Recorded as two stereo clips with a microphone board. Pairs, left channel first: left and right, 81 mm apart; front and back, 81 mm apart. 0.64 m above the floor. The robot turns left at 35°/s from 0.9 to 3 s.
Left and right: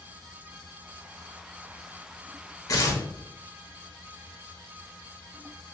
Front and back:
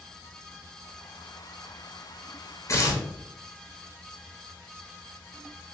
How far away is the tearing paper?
About 0.5 m.